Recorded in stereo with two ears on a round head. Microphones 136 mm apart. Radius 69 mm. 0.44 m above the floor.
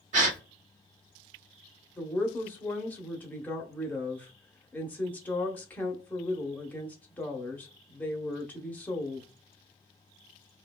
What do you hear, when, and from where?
0.1 s a gasp: 50° right (ahead or behind), 0.7 m
2.0 s a woman speaking: 10° left (ahead or behind), 0.7 m